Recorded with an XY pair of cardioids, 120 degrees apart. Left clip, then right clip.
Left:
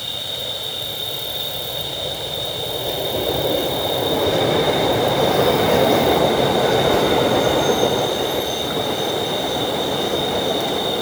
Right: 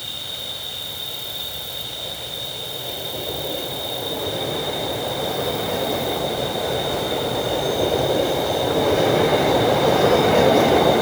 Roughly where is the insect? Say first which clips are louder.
Left 4 dB; ahead.